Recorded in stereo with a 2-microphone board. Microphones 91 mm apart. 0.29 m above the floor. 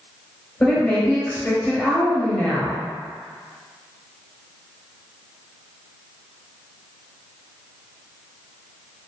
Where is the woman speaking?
25° left (ahead or behind), 1.4 m.